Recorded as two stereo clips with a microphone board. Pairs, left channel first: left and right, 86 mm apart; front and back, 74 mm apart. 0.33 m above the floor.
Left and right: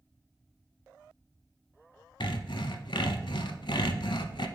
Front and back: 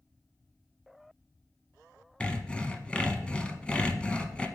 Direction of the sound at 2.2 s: 75° left.